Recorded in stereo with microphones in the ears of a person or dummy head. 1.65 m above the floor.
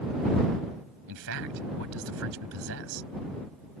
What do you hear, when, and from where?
1.1 s a man speaking: 85° right